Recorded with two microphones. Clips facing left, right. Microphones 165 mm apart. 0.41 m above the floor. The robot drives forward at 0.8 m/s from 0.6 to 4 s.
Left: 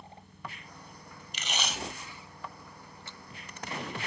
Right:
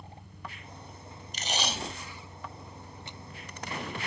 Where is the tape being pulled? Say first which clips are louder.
Right 3 dB; 40° right (ahead or behind); by 3.2 s 15° right (ahead or behind).